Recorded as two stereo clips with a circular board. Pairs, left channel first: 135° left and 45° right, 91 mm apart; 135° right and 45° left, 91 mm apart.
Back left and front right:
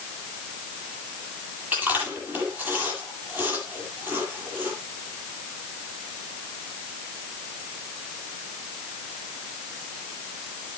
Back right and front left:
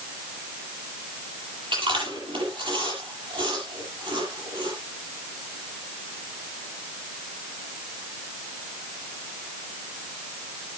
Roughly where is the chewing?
Ahead left.